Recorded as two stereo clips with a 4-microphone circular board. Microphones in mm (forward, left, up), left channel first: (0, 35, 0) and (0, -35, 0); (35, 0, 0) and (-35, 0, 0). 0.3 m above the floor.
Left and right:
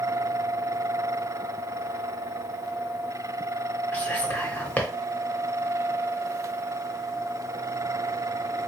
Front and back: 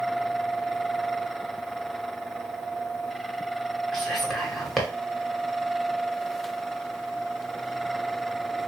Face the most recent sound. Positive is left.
turn(degrees=80)